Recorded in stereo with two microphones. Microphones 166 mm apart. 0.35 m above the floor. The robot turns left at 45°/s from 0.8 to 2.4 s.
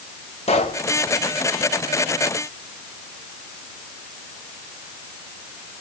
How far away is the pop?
About 1.8 m.